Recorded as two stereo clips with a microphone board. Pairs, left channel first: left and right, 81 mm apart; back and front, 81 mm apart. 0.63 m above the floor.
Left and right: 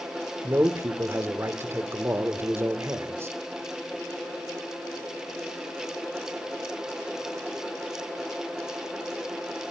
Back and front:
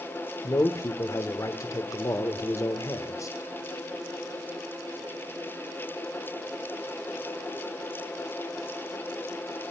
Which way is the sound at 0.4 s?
140° right.